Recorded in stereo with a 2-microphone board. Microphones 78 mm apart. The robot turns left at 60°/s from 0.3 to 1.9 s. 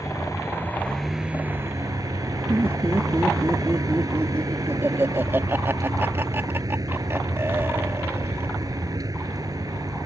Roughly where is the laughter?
Right.